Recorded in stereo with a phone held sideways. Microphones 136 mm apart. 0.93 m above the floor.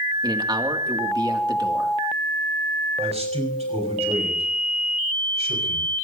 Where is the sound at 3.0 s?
50° right (ahead or behind), 5.5 m.